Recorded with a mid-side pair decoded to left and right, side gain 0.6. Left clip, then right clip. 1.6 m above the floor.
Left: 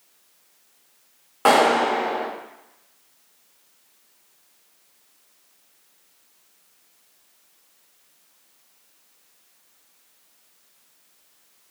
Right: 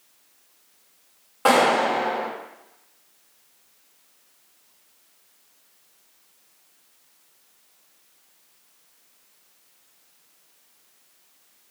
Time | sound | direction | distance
1.4 | a clap | 25° left | 5 m